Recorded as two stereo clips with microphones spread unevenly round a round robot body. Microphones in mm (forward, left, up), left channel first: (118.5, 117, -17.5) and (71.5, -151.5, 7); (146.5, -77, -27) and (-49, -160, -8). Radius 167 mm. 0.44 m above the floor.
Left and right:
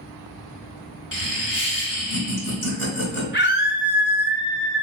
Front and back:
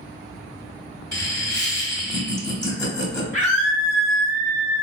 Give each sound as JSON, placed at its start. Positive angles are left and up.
{"t": 1.1, "sound": "laughter", "azimuth_deg": 90, "distance_m": 1.9}
{"t": 3.3, "sound": "a scream", "azimuth_deg": 110, "distance_m": 0.9}